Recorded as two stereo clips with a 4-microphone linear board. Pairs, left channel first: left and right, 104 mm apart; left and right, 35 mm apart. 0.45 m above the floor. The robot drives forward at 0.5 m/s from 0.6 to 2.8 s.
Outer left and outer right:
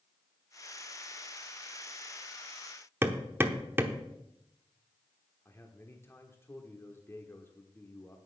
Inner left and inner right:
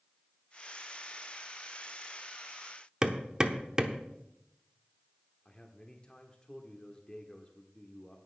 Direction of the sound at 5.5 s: 25° left (ahead or behind).